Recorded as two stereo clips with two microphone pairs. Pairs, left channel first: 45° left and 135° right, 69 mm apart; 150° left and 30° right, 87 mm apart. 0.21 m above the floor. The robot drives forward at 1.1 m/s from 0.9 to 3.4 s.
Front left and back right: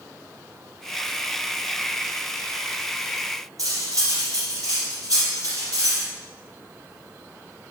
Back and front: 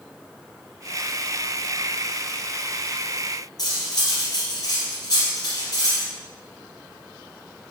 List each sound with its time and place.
3.6 s cutlery clinking: 165° right, 2.5 m